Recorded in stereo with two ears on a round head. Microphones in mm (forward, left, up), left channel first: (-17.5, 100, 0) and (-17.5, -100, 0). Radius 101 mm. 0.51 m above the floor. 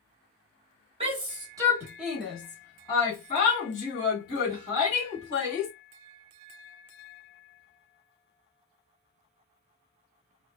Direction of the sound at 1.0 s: 25° right (ahead or behind).